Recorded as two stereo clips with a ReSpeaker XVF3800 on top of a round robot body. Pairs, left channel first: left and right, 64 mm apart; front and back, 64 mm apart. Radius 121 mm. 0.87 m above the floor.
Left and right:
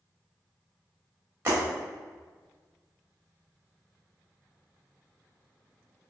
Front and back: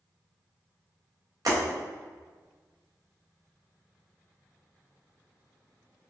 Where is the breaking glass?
150° right, 1.6 m.